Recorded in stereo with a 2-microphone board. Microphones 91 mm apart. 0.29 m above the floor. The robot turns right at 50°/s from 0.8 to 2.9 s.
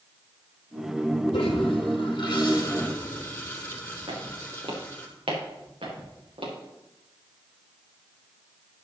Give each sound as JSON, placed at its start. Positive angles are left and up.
{"t": 1.3, "sound": "a toilet flushing", "azimuth_deg": 80, "distance_m": 2.5}
{"t": 4.1, "sound": "footsteps", "side_deg": -85, "distance_m": 4.5}